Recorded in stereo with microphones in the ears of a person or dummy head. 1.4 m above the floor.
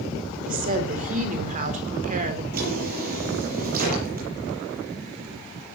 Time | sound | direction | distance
0.5 | a woman speaking | 45° right (ahead or behind) | 3.5 m
2.5 | a drawer | 50° right (ahead or behind) | 8 m